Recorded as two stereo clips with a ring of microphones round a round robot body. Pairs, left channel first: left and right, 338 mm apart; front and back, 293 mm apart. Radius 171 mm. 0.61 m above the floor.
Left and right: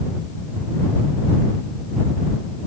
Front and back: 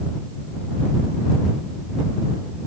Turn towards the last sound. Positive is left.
No sound to turn to.